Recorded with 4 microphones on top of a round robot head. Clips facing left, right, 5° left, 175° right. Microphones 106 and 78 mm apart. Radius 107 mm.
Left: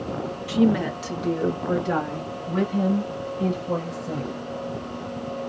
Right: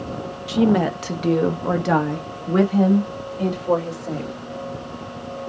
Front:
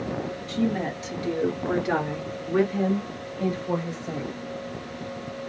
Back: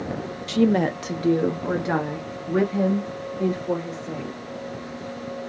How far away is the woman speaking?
About 0.6 m.